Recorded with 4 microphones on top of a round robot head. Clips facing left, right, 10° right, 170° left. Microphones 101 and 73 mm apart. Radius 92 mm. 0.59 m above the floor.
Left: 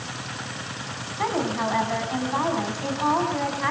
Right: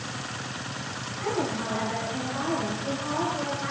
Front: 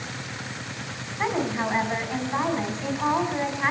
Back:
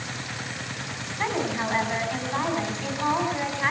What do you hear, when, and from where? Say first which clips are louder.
1.2 s a woman speaking: left 4 dB, front 1 dB; 70° left, 6.5 m